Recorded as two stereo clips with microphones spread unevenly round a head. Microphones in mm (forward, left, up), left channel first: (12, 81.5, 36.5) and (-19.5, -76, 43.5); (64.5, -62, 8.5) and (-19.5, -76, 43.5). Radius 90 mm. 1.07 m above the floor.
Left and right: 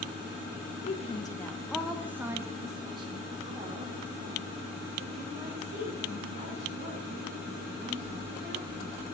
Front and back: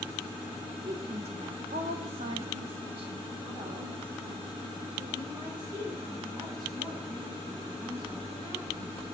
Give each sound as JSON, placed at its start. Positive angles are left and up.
{"t": 0.8, "sound": "a woman speaking", "azimuth_deg": 130, "distance_m": 1.2}